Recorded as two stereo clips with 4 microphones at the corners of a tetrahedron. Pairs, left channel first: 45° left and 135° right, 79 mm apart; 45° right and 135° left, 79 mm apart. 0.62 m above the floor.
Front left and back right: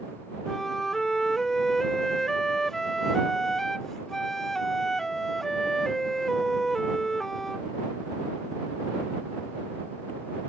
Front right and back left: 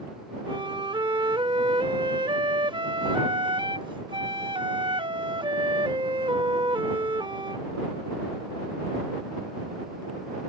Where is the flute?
130° left.